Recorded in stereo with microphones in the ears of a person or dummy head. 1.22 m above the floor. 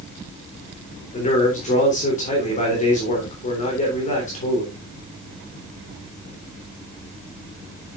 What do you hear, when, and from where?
1.1 s a man speaking: 40° left (ahead or behind), 3 m